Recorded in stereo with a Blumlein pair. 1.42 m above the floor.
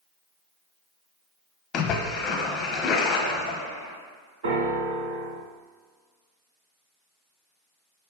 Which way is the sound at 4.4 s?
55° right.